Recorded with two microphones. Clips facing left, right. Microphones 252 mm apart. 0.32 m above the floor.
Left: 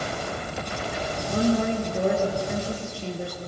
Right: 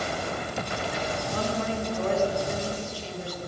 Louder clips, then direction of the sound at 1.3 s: Left 9 dB; 55° left (ahead or behind).